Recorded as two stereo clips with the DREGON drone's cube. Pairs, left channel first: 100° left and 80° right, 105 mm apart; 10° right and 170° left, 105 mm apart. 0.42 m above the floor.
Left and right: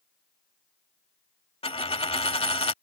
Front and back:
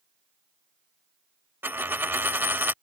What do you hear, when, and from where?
1.6 s a dropped coin: 100° left